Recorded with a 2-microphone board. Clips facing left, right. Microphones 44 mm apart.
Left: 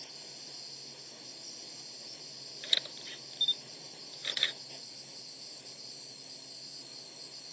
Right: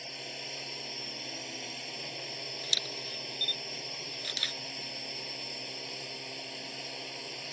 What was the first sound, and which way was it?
A drone, 75° right (ahead or behind).